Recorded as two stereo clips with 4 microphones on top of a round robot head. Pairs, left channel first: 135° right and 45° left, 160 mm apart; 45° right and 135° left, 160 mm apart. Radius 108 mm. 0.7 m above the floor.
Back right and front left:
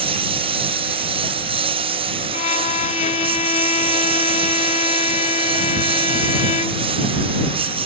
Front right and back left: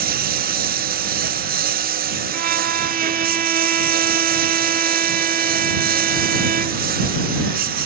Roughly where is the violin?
Behind.